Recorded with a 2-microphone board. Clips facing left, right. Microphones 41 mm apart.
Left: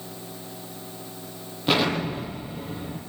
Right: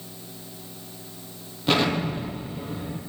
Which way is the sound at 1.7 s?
5° left (ahead or behind).